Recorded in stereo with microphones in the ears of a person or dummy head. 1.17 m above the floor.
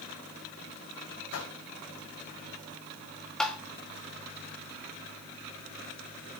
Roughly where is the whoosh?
Left.